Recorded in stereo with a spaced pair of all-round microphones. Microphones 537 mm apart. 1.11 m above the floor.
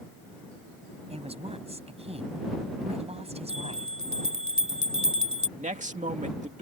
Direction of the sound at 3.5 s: 15° left (ahead or behind).